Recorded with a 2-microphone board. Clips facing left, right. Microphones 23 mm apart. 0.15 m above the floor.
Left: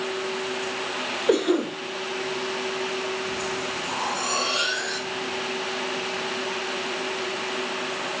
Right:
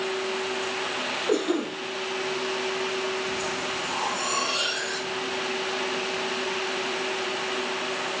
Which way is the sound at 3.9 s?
70° left (ahead or behind).